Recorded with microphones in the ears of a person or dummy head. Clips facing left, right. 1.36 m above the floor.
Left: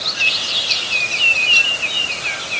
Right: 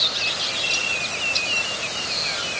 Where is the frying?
No frying in this recording.